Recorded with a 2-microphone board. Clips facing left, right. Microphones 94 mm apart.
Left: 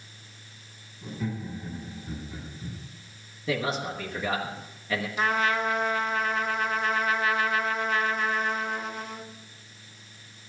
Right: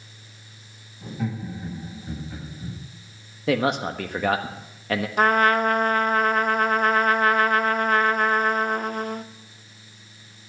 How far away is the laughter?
About 7.5 m.